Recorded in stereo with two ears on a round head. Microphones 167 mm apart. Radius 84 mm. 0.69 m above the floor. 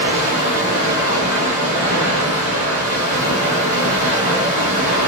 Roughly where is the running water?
Right.